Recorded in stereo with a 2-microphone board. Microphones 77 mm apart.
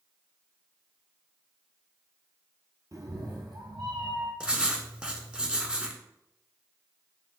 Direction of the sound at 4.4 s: 15° right (ahead or behind).